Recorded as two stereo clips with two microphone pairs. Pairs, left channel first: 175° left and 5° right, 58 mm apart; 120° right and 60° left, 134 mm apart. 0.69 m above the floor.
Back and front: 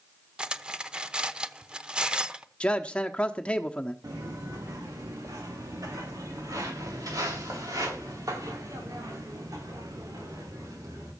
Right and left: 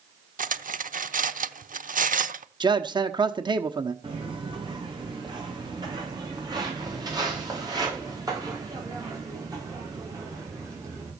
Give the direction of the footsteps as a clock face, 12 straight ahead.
12 o'clock.